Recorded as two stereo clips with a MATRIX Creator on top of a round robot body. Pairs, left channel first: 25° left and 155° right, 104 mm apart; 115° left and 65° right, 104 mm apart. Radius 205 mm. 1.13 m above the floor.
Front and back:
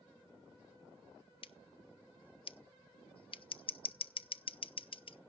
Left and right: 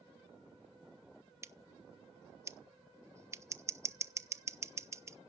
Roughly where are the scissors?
Ahead.